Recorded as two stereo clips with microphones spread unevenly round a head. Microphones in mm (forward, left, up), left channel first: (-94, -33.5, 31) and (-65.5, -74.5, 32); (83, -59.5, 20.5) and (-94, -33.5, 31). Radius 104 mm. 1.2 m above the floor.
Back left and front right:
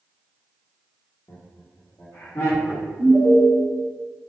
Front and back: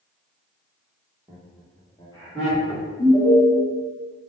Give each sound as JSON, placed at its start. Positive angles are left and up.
{"t": 1.3, "sound": "laughter", "azimuth_deg": 90, "distance_m": 0.9}
{"t": 3.0, "sound": "an alarm", "azimuth_deg": -60, "distance_m": 1.4}